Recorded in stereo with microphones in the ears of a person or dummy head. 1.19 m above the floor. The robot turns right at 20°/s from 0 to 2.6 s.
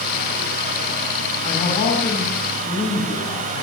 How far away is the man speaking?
About 5.5 m.